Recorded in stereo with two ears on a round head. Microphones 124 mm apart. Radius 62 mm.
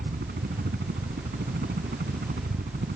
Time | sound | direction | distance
0.0 | a helicopter | 75° right (ahead or behind) | ?